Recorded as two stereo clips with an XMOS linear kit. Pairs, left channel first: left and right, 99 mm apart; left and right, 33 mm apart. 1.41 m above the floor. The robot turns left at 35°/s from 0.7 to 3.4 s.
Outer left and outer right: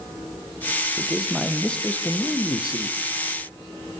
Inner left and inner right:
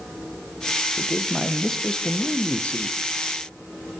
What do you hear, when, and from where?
1.0 s a man speaking: 165° right, 0.7 m; by 3.0 s 125° left, 0.7 m